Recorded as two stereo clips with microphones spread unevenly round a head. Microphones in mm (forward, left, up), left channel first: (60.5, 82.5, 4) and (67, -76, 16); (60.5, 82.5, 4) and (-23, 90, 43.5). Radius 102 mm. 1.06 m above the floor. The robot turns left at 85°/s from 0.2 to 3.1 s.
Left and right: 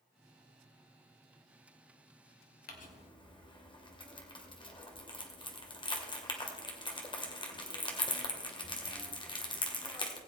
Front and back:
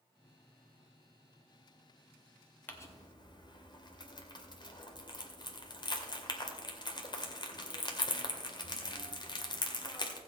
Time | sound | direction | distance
2.7 | crumpling | 70° left | 2 m